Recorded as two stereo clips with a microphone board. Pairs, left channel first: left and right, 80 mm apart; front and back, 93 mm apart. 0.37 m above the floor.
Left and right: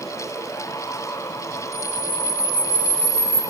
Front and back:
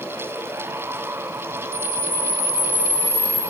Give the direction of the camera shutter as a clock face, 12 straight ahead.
6 o'clock.